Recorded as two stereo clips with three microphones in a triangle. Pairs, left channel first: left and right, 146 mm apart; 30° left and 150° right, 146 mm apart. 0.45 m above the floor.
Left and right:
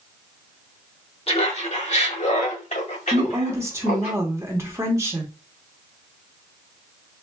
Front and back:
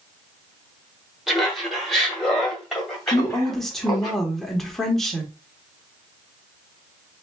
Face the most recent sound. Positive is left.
turn(degrees=-55)